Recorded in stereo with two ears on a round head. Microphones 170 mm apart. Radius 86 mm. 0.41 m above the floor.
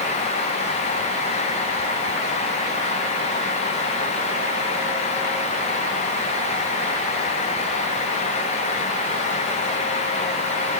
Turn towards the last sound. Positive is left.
No sound to turn to.